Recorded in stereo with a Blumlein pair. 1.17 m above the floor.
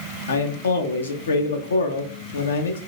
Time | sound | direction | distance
0.3 | a man speaking | 70° left | 0.8 m